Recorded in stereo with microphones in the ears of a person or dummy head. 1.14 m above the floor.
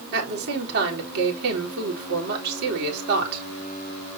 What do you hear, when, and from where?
0.1 s a woman speaking: 60° right (ahead or behind), 3.5 m